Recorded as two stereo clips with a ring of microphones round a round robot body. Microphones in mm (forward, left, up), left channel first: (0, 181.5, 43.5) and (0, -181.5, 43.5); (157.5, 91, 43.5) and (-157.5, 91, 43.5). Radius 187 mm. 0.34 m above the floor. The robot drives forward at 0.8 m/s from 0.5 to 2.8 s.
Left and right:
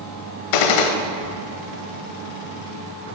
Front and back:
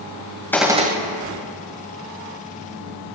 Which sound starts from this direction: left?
A gunshot, at 0.5 s.